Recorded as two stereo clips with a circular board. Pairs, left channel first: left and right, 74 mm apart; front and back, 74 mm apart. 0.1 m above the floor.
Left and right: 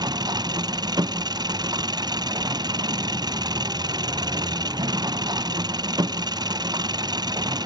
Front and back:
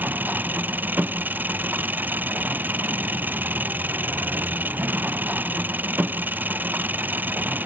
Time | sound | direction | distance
0.0 | an engine running | 115° right | ?